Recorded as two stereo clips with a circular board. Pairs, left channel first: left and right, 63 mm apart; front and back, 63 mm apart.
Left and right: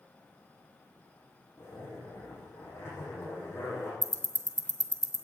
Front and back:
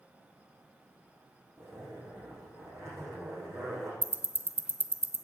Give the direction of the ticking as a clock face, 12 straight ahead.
4 o'clock.